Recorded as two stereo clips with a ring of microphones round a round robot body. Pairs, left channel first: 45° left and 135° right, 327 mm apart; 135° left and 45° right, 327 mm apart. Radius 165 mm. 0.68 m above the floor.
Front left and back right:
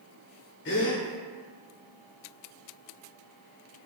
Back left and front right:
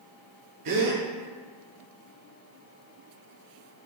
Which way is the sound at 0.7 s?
15° right.